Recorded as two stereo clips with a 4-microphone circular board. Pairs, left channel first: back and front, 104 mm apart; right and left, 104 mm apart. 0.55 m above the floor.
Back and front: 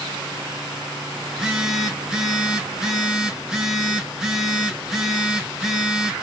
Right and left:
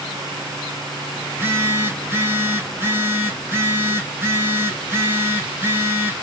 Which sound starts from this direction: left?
A phone buzzing, at 1.3 s.